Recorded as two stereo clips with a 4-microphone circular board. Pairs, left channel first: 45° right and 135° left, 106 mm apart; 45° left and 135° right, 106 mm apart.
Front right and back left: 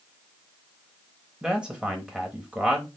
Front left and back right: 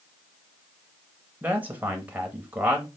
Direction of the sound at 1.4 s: 165° right.